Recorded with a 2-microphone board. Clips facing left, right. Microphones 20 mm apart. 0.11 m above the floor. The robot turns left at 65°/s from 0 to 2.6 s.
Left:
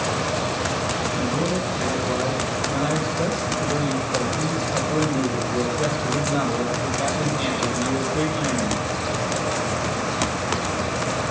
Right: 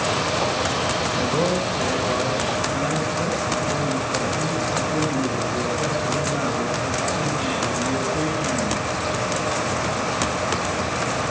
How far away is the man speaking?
About 3.5 m.